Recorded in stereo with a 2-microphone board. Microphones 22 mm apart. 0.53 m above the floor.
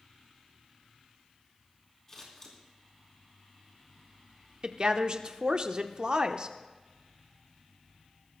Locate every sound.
2.1 s scissors: 20° left (ahead or behind), 3.5 m
4.6 s a woman speaking: 40° right (ahead or behind), 0.9 m